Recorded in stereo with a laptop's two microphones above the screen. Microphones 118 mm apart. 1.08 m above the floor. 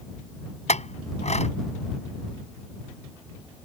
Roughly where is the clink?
Left.